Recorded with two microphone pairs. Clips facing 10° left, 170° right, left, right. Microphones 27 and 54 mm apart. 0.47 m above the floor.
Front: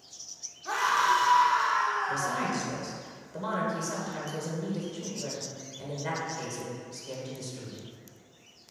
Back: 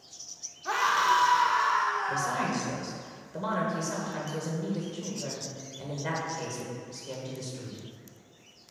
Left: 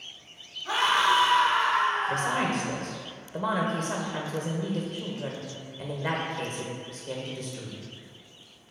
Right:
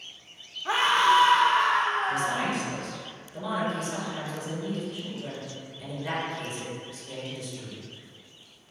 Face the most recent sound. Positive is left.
turn(degrees=105)